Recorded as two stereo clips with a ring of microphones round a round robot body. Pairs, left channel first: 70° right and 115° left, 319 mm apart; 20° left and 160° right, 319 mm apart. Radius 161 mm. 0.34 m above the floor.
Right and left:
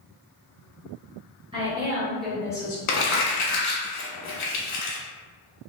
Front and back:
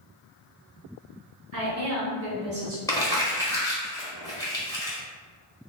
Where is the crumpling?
55° right, 0.8 m.